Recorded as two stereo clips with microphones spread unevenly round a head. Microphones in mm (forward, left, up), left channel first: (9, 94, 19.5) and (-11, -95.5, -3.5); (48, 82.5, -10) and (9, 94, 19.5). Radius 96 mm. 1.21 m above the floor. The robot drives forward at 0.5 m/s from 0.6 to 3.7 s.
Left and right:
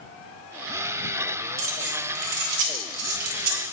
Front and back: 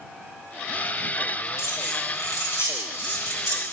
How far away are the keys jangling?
About 1.3 m.